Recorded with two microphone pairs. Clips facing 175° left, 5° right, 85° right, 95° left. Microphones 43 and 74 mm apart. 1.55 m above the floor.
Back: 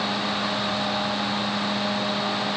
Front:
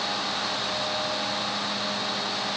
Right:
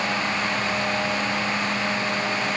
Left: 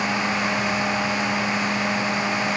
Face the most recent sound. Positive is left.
No sound to turn to.